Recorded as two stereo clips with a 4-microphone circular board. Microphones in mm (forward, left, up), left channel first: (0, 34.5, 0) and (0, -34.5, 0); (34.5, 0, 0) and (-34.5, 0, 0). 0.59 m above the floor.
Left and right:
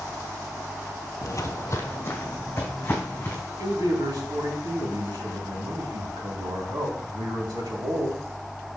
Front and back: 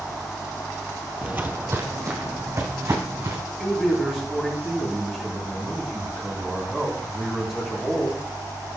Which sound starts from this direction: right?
A man speaking, at 3.6 s.